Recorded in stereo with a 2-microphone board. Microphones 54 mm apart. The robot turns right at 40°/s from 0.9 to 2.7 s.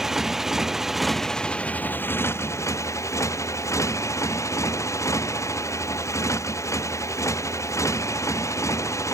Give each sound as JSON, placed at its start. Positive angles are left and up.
{"t": 0.0, "sound": "a motorcycle", "azimuth_deg": -5}